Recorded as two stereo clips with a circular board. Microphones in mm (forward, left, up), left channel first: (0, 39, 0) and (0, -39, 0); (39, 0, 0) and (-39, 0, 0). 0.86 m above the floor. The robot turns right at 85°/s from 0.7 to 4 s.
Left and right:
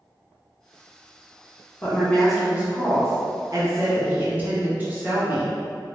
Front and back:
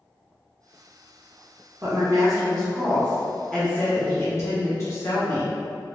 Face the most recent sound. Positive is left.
turn(degrees=-35)